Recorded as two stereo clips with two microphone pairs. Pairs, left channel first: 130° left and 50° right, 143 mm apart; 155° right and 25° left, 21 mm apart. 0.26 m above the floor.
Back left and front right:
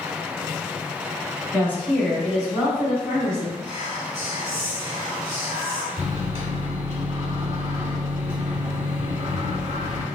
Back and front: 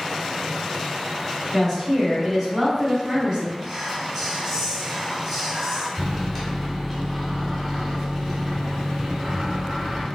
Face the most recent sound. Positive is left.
turn(degrees=-65)